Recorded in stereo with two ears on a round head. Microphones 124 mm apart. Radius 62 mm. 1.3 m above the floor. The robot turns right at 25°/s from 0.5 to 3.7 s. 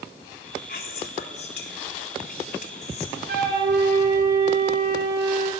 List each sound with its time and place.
0.7 s whispering: 70° left, 4 m; by 3.2 s 135° left, 4 m
3.3 s a flute: 75° right (ahead or behind), 8 m; by 5.5 s 85° right, 8 m